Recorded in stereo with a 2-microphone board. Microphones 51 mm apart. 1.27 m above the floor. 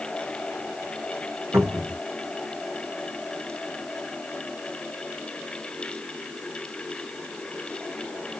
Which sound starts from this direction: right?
A cupboard door, at 1.5 s.